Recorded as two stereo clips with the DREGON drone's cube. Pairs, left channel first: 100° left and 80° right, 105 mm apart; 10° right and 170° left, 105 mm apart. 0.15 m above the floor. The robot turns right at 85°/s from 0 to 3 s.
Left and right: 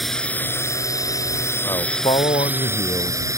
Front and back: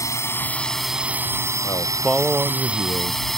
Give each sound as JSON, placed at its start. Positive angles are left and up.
{"t": 0.0, "sound": "a drone", "azimuth_deg": 10}
{"t": 1.6, "sound": "a man speaking", "azimuth_deg": 35}